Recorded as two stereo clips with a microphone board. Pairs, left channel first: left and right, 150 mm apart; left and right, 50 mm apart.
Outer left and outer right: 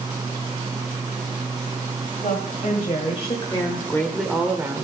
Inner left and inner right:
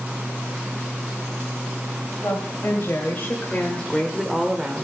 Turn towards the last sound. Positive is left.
turn(degrees=-25)  # may be behind; listen again after turning